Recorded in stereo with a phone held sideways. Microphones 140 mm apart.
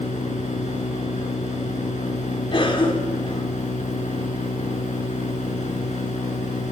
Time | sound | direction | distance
0.0 | a machine running | 60° left (ahead or behind) | 6.5 m
2.5 | a cough | 40° left (ahead or behind) | 4 m